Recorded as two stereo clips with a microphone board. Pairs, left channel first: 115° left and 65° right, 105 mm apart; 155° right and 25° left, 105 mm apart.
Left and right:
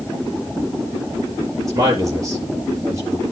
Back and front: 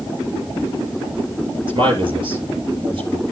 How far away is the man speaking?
About 4.5 m.